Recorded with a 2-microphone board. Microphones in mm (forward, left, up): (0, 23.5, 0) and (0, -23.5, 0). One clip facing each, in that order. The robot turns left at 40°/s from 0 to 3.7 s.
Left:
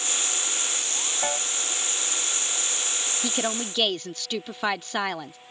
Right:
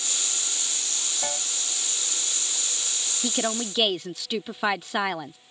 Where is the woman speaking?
Centre (ahead or behind); by 5.4 s 5° right (ahead or behind).